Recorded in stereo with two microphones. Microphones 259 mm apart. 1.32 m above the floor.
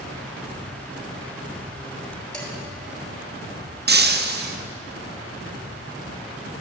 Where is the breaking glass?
40° right (ahead or behind), 0.6 m.